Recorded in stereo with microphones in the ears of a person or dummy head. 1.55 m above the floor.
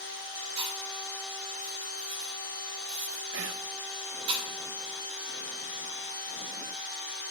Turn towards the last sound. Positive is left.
turn(degrees=-75)  # may be behind; listen again after turning